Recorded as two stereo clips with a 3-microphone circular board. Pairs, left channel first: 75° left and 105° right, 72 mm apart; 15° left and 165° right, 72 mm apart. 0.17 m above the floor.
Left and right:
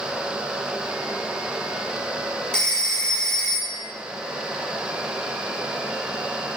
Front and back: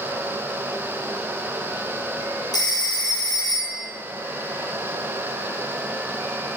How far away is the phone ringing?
About 2.5 m.